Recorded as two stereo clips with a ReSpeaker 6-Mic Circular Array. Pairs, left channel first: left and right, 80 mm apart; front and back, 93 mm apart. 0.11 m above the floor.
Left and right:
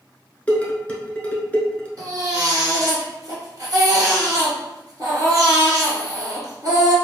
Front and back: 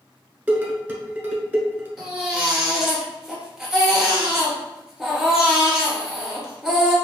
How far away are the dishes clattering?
About 0.9 m.